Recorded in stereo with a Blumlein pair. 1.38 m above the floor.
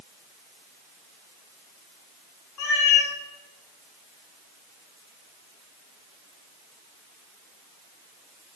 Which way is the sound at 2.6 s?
35° left.